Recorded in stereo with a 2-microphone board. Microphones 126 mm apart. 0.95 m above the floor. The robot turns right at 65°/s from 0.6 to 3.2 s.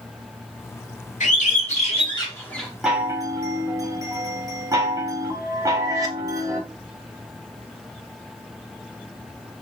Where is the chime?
5° right (ahead or behind), 0.7 m; by 6.6 s 25° right (ahead or behind), 0.7 m.